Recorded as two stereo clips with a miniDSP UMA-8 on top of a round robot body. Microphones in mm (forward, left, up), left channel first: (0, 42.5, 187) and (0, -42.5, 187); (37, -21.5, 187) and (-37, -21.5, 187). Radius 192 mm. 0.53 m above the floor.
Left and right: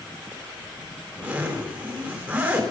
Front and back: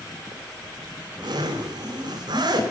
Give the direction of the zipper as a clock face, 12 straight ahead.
5 o'clock.